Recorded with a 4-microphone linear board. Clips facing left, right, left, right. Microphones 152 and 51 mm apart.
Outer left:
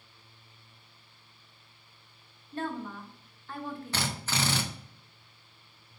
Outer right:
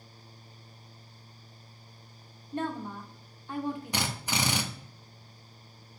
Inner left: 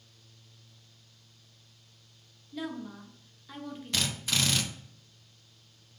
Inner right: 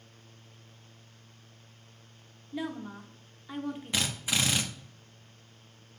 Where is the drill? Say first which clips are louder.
Outer right 1 dB, inner left 1 dB; 15° right (ahead or behind), 0.7 m.